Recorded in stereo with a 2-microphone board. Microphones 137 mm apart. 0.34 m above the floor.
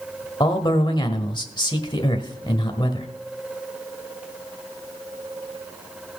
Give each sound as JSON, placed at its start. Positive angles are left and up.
{"t": 0.4, "sound": "a man speaking", "side_deg": 35, "distance_m": 1.2}